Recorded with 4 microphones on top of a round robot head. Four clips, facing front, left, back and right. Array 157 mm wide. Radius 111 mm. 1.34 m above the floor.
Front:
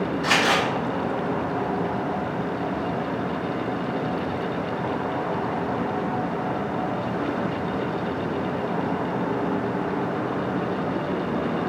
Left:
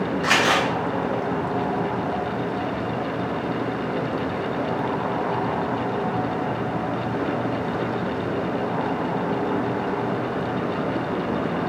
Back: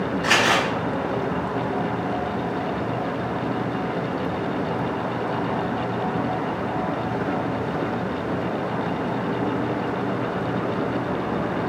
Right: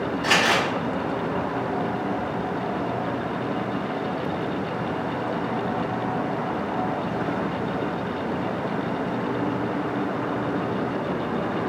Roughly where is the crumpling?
Left.